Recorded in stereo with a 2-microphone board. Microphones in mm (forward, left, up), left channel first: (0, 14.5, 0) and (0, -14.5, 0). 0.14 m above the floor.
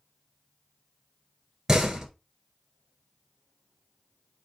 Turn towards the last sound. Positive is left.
turn(degrees=-10)  # may be behind; listen again after turning